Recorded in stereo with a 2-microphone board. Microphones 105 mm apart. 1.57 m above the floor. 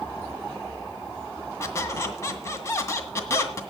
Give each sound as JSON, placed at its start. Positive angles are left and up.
{"t": 1.6, "sound": "a squeak", "side_deg": 25, "distance_m": 1.9}